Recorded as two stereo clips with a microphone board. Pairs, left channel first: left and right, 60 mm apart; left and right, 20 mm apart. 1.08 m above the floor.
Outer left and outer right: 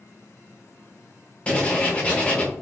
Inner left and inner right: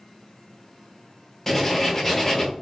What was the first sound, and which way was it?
Writing, 20° left (ahead or behind).